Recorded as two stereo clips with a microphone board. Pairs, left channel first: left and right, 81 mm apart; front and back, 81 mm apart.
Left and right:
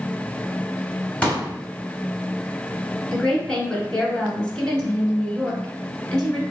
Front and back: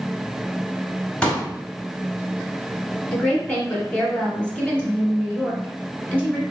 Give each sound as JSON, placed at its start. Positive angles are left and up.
{"t": 1.2, "sound": "a pop", "azimuth_deg": 50, "distance_m": 1.3}
{"t": 3.1, "sound": "a woman speaking", "azimuth_deg": 35, "distance_m": 1.3}